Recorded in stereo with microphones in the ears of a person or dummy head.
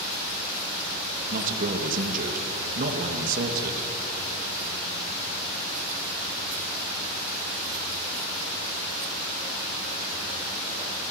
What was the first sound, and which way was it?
A man speaking, 50° right (ahead or behind).